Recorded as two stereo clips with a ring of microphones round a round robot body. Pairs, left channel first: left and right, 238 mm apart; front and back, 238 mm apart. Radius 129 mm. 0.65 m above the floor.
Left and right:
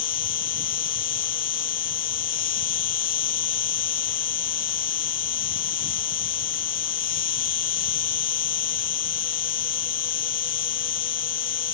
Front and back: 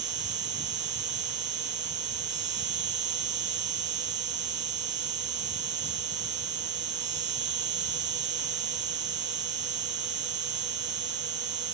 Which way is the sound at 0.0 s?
130° left.